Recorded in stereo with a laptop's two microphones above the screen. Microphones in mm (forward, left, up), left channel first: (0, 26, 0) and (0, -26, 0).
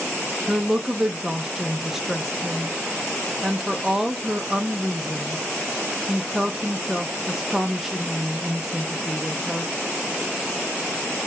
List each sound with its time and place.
0.5 s a woman speaking: 5° right (ahead or behind), 0.6 m